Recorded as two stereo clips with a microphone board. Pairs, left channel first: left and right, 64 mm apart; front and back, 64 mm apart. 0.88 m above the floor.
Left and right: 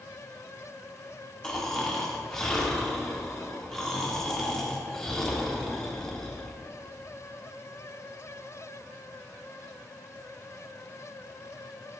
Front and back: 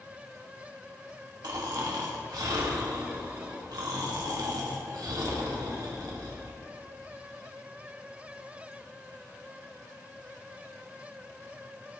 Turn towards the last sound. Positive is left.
turn(degrees=175)